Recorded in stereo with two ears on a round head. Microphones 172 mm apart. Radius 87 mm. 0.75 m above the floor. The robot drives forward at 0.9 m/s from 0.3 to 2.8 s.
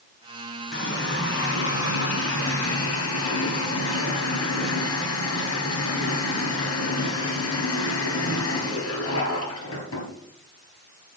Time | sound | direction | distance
0.7 | a running tap | 60° left (ahead or behind) | 4.5 m